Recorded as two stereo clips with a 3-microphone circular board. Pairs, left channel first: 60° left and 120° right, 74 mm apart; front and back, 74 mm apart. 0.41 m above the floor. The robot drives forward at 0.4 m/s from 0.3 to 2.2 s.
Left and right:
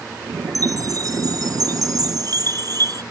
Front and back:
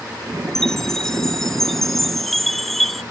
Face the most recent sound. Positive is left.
turn(degrees=-90)